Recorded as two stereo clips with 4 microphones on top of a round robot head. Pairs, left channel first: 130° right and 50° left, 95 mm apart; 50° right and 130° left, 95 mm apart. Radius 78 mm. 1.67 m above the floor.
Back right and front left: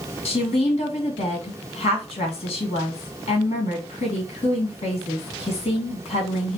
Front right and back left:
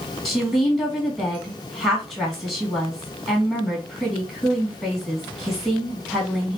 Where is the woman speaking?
135° right, 2.5 m.